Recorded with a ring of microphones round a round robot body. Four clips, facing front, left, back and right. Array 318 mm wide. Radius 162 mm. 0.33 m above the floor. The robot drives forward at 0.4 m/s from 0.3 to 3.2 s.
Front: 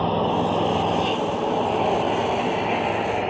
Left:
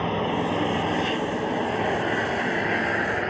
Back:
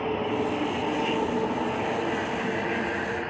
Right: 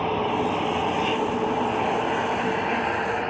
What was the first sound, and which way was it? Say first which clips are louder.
An engine running: right 1 dB, front 5 dB; 20° left.